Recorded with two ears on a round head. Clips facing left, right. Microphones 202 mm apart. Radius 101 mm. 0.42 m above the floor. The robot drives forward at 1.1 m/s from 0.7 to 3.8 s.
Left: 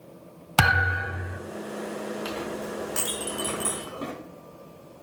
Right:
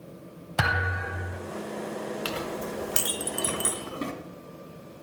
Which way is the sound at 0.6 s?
80° left.